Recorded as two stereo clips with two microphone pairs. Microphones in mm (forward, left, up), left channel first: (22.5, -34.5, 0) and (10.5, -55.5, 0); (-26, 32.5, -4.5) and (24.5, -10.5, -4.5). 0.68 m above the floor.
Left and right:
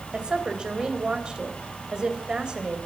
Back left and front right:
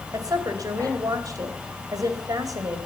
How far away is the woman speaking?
About 3 m.